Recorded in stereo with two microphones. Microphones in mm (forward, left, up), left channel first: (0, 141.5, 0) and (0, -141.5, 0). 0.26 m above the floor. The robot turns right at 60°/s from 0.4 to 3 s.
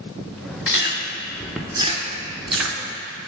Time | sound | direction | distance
0.7 | chewing | 50° left (ahead or behind) | 0.6 m